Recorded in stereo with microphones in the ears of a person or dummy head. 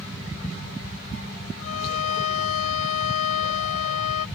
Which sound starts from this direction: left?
A violin, at 1.6 s.